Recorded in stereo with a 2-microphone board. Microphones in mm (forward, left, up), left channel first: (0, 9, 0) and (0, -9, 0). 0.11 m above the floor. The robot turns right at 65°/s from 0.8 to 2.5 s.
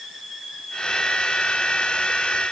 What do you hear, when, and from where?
Only background noise.